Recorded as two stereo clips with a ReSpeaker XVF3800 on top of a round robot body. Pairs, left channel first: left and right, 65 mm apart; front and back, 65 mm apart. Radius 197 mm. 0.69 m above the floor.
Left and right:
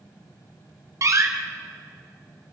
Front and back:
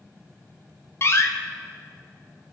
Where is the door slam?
50° right, 2 m.